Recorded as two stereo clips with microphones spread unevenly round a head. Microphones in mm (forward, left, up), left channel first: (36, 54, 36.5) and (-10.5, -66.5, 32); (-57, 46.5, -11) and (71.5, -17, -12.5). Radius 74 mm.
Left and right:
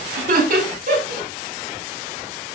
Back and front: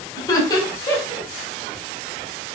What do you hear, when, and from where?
0.2 s laughter: 140° right, 4.5 m